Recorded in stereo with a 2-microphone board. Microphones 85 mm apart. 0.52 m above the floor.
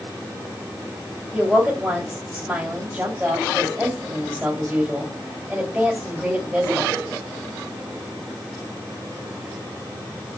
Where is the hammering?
I don't hear hammering.